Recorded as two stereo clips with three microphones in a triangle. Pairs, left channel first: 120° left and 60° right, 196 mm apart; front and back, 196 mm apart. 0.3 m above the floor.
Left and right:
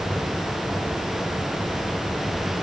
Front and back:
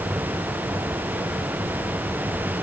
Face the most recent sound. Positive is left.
No sound to turn to.